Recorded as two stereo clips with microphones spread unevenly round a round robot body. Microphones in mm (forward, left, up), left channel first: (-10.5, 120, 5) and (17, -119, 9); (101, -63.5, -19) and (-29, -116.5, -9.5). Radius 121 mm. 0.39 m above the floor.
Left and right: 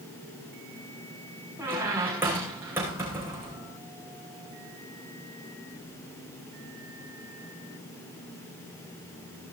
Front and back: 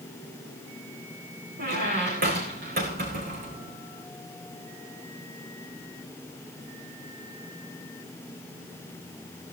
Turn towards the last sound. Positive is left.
turn(degrees=-165)